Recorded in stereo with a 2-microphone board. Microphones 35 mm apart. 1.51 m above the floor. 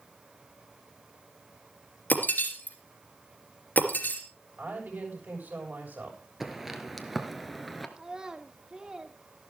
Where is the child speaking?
25° right (ahead or behind), 1.6 m.